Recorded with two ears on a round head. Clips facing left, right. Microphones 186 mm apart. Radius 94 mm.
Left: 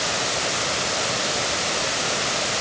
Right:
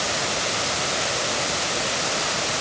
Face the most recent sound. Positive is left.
No sound to turn to.